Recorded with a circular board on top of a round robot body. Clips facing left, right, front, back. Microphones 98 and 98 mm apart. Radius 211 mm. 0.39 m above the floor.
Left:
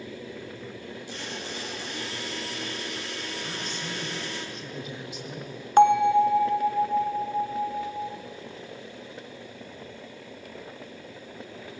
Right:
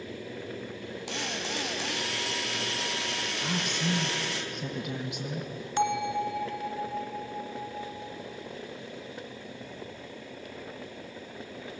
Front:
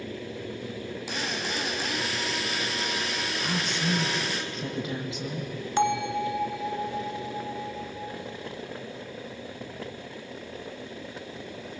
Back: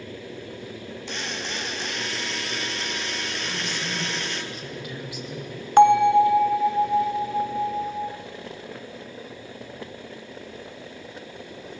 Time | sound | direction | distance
1.1 | a drill | 85° right | 4 m
3.4 | a woman speaking | 65° right | 4.5 m
5.8 | a bell | 135° left | 0.5 m